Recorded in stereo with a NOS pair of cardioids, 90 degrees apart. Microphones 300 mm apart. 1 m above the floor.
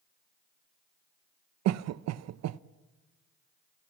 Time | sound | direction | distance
1.6 | a cough | 65° right | 0.6 m